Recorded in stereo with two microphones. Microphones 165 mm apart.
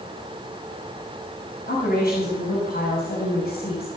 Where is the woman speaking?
85° left, 5 m; by 3.9 s 80° left, 5.5 m.